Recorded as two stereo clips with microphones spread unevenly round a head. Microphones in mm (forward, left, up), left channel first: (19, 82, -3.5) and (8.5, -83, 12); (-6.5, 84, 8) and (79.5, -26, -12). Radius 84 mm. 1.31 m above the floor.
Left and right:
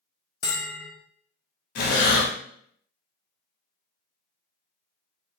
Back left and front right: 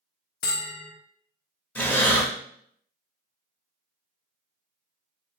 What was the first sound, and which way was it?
A bell, 155° left.